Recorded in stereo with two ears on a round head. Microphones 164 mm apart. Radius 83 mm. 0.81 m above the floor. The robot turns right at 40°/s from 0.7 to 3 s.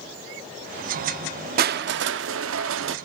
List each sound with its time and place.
1.6 s crushing: 125° right, 0.8 m; by 3.0 s 70° right, 0.8 m